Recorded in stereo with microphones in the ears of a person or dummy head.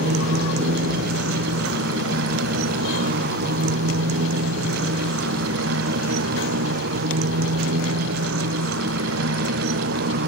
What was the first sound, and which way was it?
A motorcycle, 70° right (ahead or behind).